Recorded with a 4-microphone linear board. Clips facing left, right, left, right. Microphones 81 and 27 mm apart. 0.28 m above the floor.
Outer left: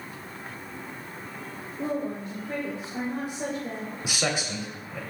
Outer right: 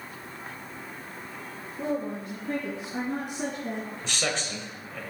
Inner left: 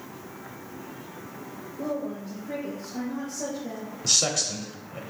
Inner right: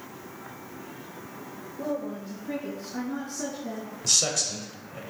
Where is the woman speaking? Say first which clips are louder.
Even, even; 75° right (ahead or behind), 3.5 m; by 3.9 s 55° right (ahead or behind), 2 m.